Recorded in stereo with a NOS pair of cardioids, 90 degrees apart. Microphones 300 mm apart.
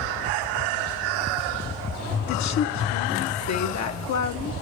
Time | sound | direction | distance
2.3 | a woman speaking | 70° left | 1.6 m